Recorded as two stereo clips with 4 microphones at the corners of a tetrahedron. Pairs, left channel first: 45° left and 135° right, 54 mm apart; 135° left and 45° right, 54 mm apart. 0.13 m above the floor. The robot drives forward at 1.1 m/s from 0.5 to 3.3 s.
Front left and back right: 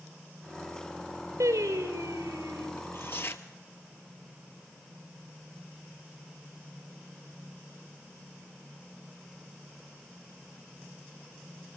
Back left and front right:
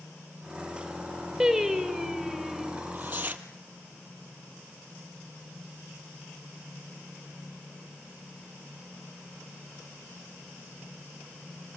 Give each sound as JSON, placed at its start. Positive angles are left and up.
{"t": 1.4, "sound": "singing", "azimuth_deg": -125, "distance_m": 4.5}
{"t": 2.8, "sound": "tearing paper", "azimuth_deg": 10, "distance_m": 2.5}